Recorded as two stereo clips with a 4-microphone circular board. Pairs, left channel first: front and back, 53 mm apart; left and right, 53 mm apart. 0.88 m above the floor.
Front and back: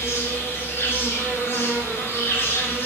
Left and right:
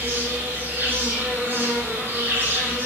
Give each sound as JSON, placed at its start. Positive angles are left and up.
{"t": 0.0, "sound": "an insect", "azimuth_deg": -40, "distance_m": 0.9}